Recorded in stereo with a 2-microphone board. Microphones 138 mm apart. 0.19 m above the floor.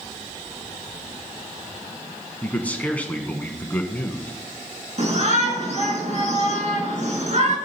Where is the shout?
55° right (ahead or behind), 2.5 m.